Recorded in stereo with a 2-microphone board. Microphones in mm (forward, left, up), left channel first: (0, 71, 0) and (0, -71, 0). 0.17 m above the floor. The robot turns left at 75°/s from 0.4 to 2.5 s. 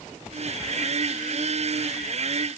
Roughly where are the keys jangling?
No keys jangling in this recording.